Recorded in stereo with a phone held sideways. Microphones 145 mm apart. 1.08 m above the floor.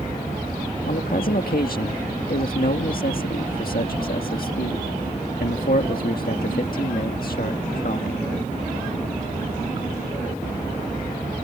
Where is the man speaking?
75° left (ahead or behind).